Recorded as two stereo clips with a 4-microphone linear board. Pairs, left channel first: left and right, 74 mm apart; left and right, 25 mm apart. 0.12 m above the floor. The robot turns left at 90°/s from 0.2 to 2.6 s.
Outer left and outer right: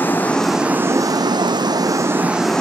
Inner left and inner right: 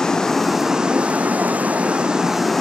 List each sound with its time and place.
0.0 s running water: 25° left, 0.9 m; by 2.6 s 170° left, 0.9 m